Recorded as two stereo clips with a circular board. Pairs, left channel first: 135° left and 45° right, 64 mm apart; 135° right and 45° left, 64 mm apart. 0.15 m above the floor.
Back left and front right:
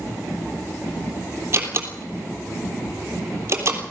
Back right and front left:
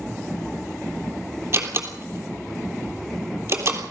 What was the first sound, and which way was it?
A door slam, straight ahead.